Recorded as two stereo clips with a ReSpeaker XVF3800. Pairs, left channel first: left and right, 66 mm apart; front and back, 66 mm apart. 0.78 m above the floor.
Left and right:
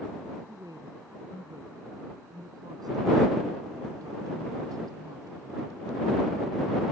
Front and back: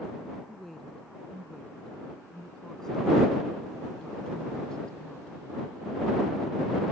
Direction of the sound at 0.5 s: 85° right.